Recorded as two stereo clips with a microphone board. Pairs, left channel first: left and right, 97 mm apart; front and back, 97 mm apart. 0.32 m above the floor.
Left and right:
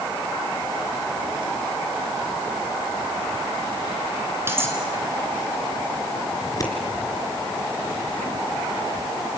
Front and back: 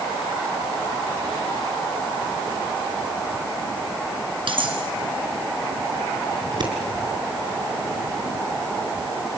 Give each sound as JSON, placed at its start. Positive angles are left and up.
{"t": 4.5, "sound": "cutlery clinking", "azimuth_deg": -155, "distance_m": 3.0}
{"t": 6.4, "sound": "scissors", "azimuth_deg": 140, "distance_m": 3.5}